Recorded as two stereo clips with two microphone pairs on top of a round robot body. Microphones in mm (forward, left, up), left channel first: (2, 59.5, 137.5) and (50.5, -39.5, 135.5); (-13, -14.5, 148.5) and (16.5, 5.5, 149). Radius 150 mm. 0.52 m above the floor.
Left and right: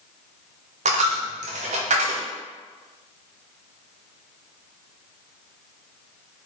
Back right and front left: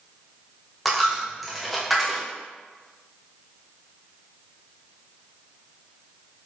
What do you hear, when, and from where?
0.8 s a dropped coin: 55° right, 0.5 m